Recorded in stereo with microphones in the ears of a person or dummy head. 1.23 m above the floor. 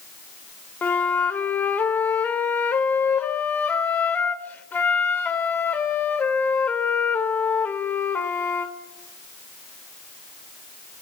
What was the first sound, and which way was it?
A flute, 15° left (ahead or behind).